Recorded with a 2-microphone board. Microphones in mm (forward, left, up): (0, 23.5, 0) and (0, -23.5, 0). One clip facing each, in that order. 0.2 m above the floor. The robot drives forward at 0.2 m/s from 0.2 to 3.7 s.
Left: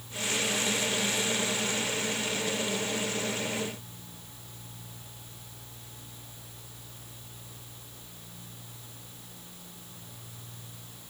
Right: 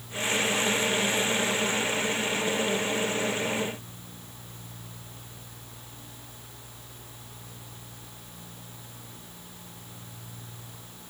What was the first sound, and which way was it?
Only background noise.